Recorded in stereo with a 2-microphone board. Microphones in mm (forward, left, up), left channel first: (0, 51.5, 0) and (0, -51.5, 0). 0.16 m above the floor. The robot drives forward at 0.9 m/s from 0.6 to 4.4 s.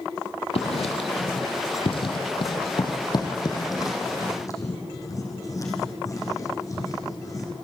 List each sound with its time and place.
0.6 s writing: 75° left (ahead or behind), 2.5 m; by 7.6 s 35° left (ahead or behind), 4.5 m